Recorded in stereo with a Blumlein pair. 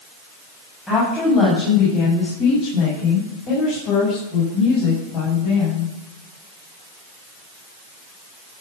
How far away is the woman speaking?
About 7 m.